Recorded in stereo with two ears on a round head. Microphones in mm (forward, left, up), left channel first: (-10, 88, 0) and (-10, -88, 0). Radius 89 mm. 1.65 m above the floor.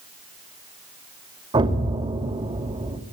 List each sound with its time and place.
1.5 s an explosion: 25° right (ahead or behind), 2.5 m